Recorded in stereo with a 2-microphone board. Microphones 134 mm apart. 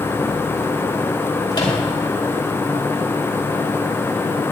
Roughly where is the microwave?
Left.